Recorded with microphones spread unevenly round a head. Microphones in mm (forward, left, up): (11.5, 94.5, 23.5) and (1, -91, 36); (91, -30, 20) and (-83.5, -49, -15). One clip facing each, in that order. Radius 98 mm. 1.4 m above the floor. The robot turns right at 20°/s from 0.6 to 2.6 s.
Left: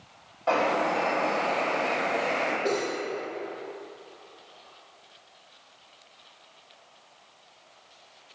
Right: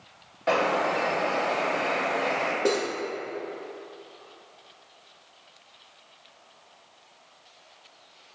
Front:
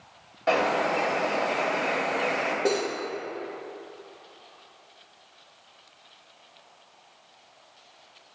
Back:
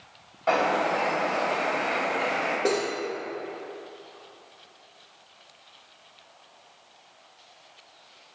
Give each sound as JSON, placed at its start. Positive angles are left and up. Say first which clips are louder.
{"t": 0.5, "sound": "a bird", "louder": "right 1 dB, even", "azimuth_deg": -40, "distance_m": 1.5}
{"t": 2.6, "sound": "cutlery clinking", "louder": "right 4 dB, even", "azimuth_deg": -85, "distance_m": 0.9}